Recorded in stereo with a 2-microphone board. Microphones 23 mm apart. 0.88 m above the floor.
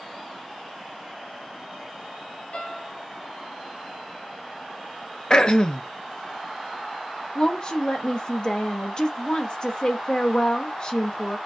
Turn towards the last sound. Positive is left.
turn(degrees=35)  # may be behind; listen again after turning